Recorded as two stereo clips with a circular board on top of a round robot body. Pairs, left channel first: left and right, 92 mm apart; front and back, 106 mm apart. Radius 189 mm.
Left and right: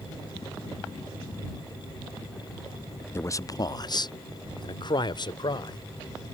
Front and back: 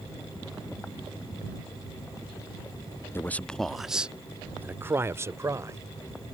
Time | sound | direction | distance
3.1 | a man speaking | 50° left | ?